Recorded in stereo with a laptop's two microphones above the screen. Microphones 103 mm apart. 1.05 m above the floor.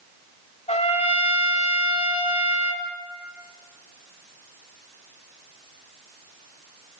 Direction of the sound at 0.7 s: 80° left.